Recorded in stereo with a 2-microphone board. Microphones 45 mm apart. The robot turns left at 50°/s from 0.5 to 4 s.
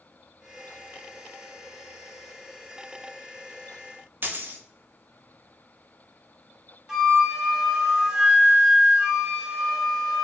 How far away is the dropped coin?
About 0.6 m.